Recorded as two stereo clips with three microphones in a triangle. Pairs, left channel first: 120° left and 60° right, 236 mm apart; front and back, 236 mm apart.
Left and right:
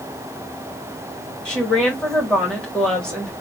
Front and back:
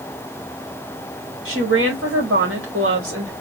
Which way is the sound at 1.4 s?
155° right.